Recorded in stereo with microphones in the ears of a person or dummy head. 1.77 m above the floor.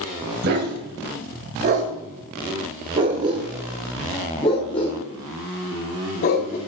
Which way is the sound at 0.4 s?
55° right (ahead or behind).